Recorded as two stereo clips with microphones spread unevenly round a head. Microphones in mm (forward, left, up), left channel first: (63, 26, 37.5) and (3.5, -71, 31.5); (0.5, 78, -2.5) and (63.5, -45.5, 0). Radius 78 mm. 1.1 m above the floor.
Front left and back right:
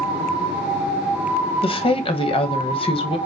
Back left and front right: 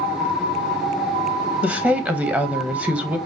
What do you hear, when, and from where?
1.6 s a woman speaking: 15° left, 1.1 m